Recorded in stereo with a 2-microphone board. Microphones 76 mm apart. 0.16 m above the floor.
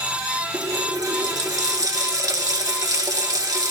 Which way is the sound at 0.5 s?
50° right (ahead or behind).